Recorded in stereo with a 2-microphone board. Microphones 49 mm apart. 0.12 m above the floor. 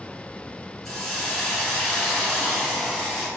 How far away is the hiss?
About 1.4 m.